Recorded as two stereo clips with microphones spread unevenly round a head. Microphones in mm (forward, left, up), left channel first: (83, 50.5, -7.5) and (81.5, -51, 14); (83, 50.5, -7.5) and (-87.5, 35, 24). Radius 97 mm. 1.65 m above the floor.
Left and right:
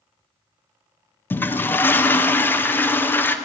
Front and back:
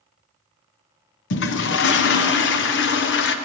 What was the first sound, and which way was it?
A toilet flushing, 15° left.